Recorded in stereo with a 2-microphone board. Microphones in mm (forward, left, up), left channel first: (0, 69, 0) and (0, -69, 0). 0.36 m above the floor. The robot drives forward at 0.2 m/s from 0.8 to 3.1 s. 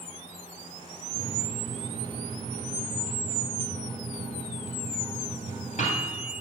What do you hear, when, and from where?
1.1 s a microwave: 55° left (ahead or behind), 2.5 m; by 6.4 s 60° left (ahead or behind), 2.5 m